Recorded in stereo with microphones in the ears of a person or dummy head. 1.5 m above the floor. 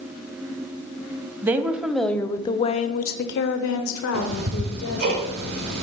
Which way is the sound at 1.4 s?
15° right (ahead or behind).